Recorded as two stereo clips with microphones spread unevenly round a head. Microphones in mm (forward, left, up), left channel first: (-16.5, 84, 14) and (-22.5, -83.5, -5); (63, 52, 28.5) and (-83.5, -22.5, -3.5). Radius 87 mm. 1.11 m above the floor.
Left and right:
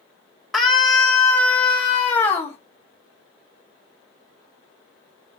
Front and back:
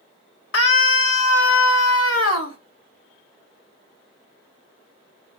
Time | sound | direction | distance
0.5 | a scream | straight ahead | 2.5 m